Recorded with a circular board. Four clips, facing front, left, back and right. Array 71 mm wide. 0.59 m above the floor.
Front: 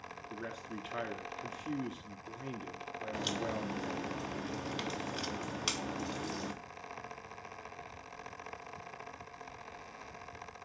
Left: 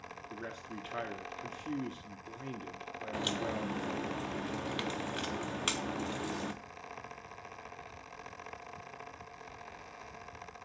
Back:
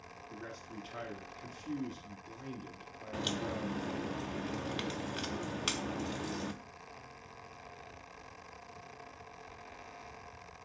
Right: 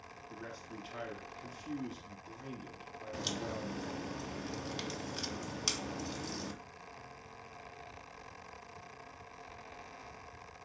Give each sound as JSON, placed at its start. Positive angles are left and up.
{"t": 0.3, "sound": "a man speaking", "azimuth_deg": 40, "distance_m": 0.7}
{"t": 3.1, "sound": "a crack", "azimuth_deg": 105, "distance_m": 0.8}